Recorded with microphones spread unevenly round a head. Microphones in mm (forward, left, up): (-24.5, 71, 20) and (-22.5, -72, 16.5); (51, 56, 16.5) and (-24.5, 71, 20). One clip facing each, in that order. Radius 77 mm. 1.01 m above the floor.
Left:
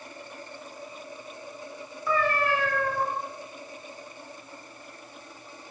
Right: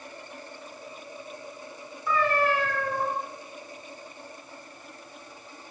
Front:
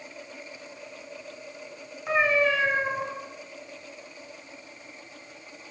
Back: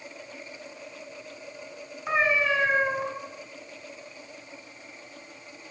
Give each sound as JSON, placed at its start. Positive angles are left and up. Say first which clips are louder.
{"t": 2.1, "sound": "a cat meowing", "louder": "right 1 dB, front 1 dB", "azimuth_deg": 80, "distance_m": 1.9}